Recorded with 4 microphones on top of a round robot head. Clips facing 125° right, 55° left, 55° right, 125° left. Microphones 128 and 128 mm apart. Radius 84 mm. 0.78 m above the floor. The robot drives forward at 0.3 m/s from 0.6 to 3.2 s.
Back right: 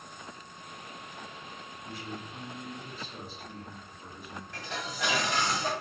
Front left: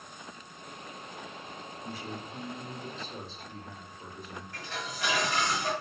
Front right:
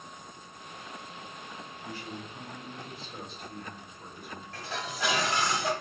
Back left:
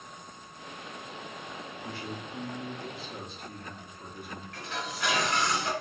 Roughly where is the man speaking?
Behind left.